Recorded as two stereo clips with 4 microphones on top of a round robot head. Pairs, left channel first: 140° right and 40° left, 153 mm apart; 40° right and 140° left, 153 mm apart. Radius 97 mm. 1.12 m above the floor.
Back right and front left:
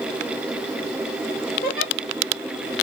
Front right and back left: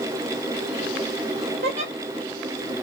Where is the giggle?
170° right, 1.1 m.